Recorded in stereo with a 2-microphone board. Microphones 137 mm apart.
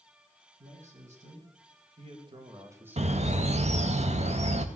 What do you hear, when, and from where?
0.6 s a man speaking: 65° right (ahead or behind), 3 m; by 3.6 s 15° left (ahead or behind), 1.5 m
3.0 s a bird: 55° right (ahead or behind), 0.8 m